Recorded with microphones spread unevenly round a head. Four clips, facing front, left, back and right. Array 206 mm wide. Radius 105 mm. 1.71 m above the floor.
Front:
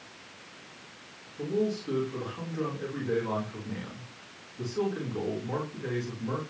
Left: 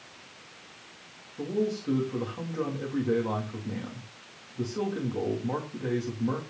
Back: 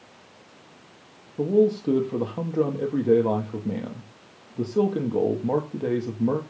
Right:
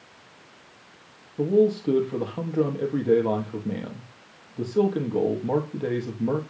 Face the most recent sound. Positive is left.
turn(degrees=-150)